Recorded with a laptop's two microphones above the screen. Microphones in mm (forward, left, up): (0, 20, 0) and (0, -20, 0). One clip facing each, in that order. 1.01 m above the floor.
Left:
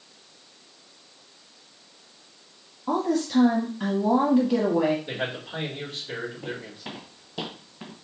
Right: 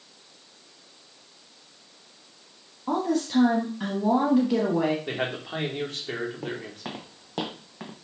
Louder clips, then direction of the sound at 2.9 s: Left 1 dB; 5° right (ahead or behind).